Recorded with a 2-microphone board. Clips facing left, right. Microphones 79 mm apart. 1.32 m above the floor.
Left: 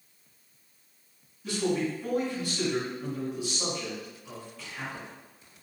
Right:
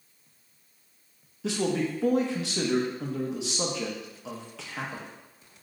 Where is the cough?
No cough in this recording.